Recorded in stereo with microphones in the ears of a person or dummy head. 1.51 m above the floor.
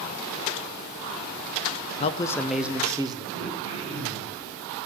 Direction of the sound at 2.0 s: 35° left (ahead or behind).